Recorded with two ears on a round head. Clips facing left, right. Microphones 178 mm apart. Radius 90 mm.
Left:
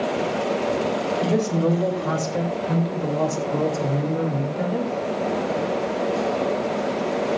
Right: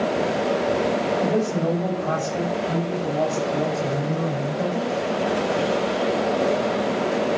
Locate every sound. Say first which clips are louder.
1.2 s a woman speaking: left 1 dB; 75° left (ahead or behind), 6 m; by 4.9 s 85° left, 5 m